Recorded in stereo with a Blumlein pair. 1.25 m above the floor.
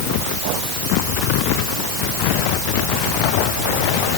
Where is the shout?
No shout in this recording.